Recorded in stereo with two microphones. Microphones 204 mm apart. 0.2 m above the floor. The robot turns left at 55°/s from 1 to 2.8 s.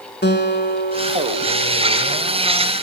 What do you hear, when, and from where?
0.2 s a guitar: 105° left, 1.7 m; by 2.4 s 25° left, 1.7 m